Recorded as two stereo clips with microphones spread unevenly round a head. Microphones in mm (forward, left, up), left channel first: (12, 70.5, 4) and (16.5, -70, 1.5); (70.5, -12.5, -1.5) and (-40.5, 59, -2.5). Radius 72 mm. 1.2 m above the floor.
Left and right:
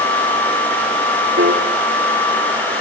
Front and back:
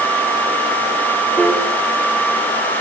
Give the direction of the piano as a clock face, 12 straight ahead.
4 o'clock.